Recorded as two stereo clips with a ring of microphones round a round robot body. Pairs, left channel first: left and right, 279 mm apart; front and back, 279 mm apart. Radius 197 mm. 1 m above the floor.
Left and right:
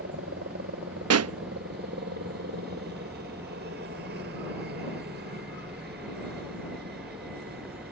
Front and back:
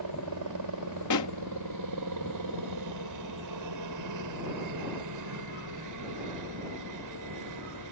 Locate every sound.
0.0 s a helicopter: 155° right
1.1 s a pop: 50° right